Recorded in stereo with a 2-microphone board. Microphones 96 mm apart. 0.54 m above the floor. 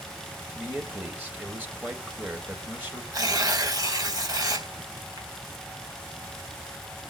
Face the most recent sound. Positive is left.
turn(degrees=-40)  # may be behind; listen again after turning